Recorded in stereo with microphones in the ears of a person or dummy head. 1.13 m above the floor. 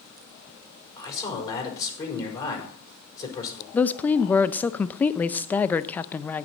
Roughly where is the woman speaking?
Centre.